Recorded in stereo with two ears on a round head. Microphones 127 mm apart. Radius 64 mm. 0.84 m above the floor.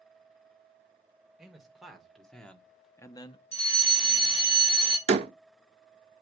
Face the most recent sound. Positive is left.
turn(degrees=-45)  # may be behind; listen again after turning